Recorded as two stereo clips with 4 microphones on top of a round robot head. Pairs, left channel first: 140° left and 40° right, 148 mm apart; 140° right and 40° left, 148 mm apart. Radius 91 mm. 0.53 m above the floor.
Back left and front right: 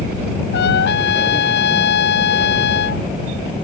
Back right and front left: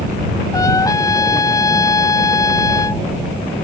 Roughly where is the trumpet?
Behind left.